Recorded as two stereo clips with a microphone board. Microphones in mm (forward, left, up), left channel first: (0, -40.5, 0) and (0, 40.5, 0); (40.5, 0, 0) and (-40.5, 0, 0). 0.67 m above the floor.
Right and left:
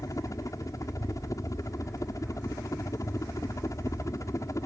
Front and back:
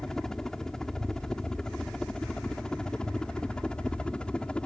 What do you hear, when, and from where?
0.0 s a helicopter: 80° right; by 4.7 s 70° right